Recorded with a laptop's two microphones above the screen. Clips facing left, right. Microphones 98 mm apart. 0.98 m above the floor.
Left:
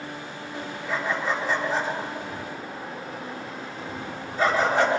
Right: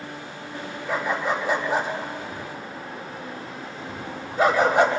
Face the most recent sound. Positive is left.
turn(degrees=-15)  # may be behind; listen again after turning